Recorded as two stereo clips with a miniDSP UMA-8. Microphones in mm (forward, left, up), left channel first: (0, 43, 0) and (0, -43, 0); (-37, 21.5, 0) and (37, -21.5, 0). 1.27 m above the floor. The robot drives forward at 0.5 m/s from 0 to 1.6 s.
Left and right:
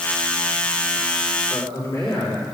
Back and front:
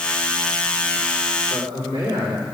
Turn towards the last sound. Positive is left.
turn(degrees=150)